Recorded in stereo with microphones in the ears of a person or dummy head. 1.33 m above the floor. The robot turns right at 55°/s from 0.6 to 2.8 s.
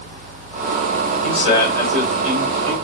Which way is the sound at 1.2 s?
135° left.